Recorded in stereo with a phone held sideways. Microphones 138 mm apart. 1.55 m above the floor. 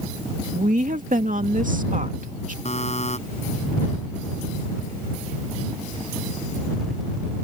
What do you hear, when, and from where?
0.5 s a woman speaking: 80° right
2.6 s a buzzer: 55° left (ahead or behind)